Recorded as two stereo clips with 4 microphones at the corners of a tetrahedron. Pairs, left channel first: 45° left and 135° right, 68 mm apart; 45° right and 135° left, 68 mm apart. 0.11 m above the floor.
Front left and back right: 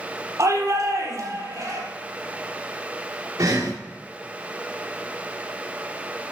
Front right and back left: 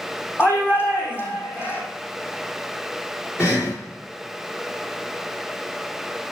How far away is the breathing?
About 5.5 m.